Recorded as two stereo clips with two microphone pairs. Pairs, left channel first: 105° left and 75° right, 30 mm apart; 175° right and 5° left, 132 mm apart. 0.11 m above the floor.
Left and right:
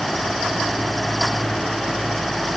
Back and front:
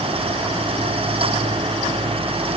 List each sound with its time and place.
Only background noise.